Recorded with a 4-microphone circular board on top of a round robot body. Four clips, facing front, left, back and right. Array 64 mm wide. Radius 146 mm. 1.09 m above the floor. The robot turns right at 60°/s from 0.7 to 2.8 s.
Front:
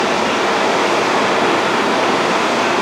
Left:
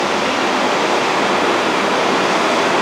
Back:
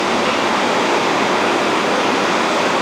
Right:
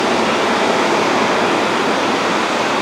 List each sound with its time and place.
0.0 s running water: 60° right, 1.4 m; by 2.8 s 65° left, 1.4 m